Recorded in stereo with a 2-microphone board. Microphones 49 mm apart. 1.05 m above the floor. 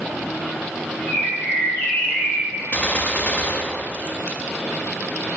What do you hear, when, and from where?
1.1 s a bird: 40° left (ahead or behind), 3 m
2.7 s a gunshot: 30° left (ahead or behind), 0.6 m